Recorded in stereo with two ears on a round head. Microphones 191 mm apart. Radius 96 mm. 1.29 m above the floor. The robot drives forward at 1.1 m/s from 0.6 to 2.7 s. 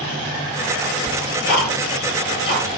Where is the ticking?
40° left (ahead or behind), 9 m; by 2.8 s 50° left (ahead or behind), 8 m.